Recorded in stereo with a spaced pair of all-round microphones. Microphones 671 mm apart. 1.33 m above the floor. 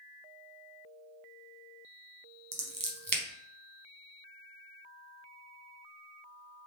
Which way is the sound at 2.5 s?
30° right (ahead or behind).